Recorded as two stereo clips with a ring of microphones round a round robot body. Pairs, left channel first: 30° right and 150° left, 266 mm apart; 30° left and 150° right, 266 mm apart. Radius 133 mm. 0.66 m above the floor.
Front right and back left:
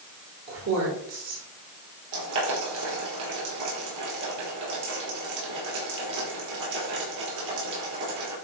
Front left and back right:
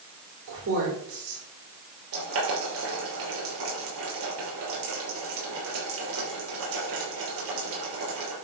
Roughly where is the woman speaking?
Behind.